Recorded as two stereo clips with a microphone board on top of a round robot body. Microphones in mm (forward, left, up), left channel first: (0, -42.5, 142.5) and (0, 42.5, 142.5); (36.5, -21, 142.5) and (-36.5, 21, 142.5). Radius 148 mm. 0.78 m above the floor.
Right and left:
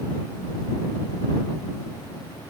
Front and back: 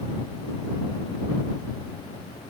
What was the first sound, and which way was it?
Only background noise.